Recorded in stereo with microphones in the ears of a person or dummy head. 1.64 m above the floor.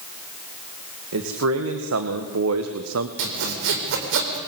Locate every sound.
1.1 s a man speaking: 80° right, 2.5 m
3.2 s sawing: 70° right (ahead or behind), 4 m